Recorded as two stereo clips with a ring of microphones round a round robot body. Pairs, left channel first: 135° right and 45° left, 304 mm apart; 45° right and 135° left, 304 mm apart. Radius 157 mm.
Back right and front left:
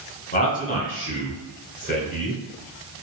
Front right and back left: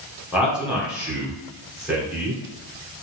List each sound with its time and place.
0.3 s a man speaking: 140° right, 1.5 m